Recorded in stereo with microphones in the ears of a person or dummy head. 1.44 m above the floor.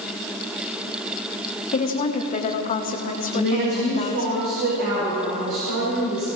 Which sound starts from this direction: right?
A woman speaking, at 3.3 s.